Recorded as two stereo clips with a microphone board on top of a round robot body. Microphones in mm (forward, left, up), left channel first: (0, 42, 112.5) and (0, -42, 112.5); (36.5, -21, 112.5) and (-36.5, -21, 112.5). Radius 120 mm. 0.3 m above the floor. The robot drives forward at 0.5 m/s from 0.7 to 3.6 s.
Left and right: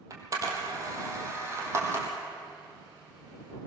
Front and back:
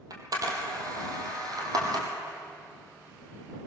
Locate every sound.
0.1 s a camera shutter: 145° right, 2.5 m; by 2.1 s 150° right, 3.5 m